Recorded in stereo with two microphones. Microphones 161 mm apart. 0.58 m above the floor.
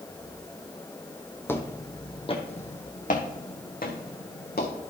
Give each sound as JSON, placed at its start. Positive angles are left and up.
{"t": 1.5, "sound": "footsteps", "side_deg": 15, "distance_m": 1.1}